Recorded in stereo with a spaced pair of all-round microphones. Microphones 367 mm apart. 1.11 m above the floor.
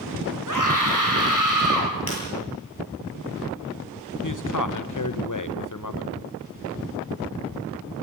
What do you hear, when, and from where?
0.5 s a scream: 55° right (ahead or behind), 5.5 m
2.1 s breaking glass: 75° left (ahead or behind), 9 m
4.2 s a man speaking: 55° left (ahead or behind), 1.1 m